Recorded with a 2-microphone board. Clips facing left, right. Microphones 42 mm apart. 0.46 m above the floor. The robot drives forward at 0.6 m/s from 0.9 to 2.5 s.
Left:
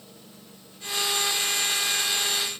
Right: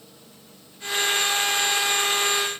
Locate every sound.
Only background noise.